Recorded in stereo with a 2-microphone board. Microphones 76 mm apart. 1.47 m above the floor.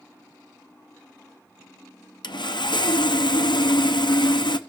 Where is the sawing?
80° left, 0.6 m.